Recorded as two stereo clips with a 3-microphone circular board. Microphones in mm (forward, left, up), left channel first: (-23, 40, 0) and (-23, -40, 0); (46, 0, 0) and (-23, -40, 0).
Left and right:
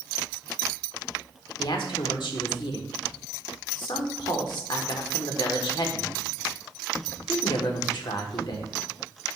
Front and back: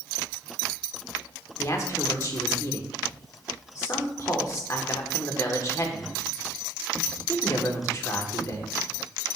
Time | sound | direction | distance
1.6 | a man speaking | 75° left | 1.3 m